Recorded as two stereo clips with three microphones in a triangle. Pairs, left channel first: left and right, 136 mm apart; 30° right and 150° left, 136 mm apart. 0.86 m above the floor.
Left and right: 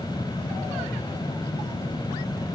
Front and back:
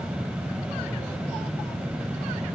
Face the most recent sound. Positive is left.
No sound to turn to.